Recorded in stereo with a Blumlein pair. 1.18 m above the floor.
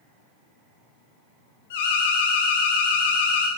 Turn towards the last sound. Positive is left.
turn(degrees=55)